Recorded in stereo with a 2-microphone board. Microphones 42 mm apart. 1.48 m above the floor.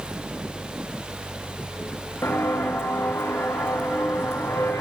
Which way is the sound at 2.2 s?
75° left (ahead or behind).